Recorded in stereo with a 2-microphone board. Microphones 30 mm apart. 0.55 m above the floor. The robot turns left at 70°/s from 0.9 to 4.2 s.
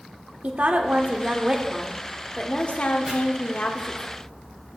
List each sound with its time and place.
0.4 s a woman speaking: 105° right, 1.3 m; by 4.1 s 35° left, 1.3 m
3.1 s chopping: 25° right (ahead or behind), 3.5 m; by 3.1 s 20° right (ahead or behind), 3.5 m